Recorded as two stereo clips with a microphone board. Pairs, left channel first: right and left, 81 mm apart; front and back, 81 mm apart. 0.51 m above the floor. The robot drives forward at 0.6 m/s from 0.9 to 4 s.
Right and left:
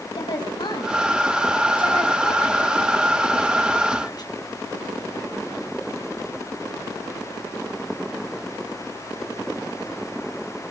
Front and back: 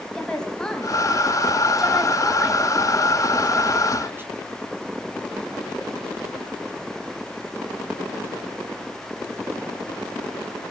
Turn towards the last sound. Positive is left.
turn(degrees=-120)